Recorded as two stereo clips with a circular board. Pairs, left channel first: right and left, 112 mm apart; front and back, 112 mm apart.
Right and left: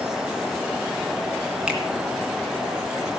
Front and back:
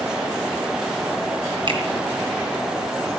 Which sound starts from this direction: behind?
A finger snap, at 1.7 s.